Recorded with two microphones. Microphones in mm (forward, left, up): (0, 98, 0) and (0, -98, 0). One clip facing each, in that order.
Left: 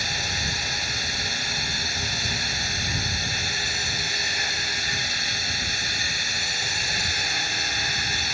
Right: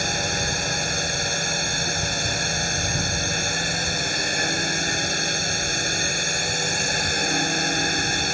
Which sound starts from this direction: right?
A drone, at 0.0 s.